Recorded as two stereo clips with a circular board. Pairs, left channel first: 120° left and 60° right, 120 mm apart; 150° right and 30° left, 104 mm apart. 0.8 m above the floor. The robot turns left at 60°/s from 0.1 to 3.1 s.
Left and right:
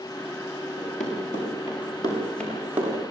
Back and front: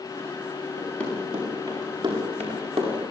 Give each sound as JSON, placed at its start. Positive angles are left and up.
{"t": 0.8, "sound": "running footsteps", "azimuth_deg": 145, "distance_m": 9.0}